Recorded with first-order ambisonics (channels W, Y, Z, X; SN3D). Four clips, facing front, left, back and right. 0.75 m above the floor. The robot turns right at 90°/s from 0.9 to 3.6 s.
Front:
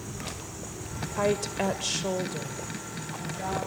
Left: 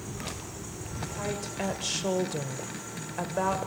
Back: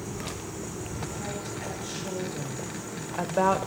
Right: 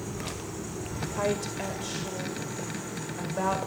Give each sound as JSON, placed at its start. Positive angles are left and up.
{"t": 1.2, "sound": "a woman speaking", "azimuth_deg": -30, "distance_m": 2.5}